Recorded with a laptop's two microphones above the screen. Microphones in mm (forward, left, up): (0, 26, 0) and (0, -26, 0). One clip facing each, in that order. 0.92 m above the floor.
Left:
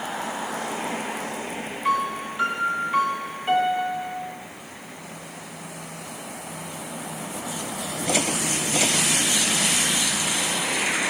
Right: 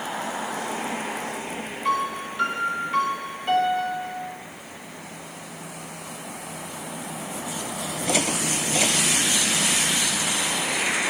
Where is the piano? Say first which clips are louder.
Left 1 dB; 5° left (ahead or behind), 0.8 m.